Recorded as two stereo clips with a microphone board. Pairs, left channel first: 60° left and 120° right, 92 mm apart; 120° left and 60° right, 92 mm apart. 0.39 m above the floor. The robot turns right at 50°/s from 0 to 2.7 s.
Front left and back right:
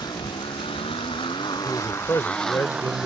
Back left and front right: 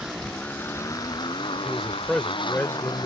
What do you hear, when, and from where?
0.0 s a motorcycle: 20° left; by 3.1 s 155° left
1.6 s a man speaking: 15° left; by 3.1 s 65° left